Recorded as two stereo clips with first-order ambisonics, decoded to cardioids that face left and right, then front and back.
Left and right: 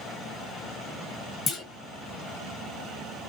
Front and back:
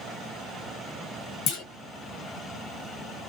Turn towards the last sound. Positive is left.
turn(degrees=25)